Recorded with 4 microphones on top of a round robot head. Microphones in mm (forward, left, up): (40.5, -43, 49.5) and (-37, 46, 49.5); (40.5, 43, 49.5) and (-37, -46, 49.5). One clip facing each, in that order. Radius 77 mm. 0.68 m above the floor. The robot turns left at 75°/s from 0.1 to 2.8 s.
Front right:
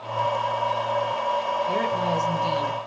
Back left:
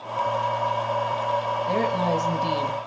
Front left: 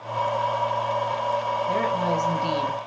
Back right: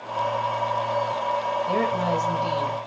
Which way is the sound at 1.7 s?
175° left.